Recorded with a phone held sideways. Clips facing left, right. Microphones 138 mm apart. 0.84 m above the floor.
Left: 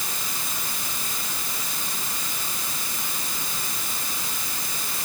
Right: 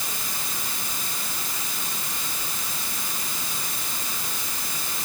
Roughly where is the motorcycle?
No motorcycle in this recording.